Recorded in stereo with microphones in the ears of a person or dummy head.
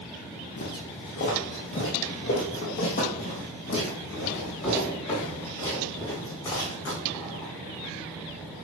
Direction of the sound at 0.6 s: 50° left (ahead or behind).